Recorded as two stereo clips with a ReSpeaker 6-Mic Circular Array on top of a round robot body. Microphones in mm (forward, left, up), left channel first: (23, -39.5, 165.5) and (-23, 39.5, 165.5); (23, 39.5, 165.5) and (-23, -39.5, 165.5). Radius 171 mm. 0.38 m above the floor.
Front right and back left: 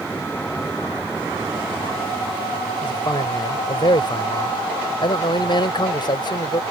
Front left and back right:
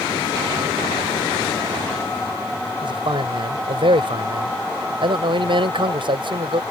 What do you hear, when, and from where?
2.8 s a man speaking: 95° right